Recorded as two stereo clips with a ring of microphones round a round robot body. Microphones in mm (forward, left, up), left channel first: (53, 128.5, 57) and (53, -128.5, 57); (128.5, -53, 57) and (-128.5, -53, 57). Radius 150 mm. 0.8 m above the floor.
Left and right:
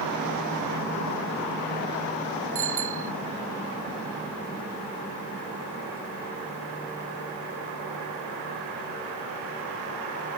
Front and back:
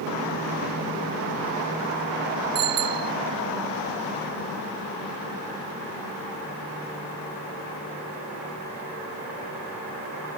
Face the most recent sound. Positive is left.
turn(degrees=-155)